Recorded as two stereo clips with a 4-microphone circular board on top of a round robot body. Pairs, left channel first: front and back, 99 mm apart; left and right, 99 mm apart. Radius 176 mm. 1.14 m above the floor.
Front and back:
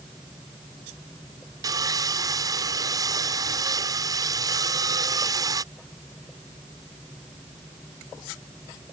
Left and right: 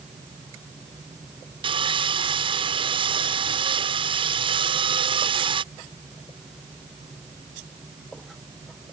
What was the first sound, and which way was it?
Sawing, 125° right.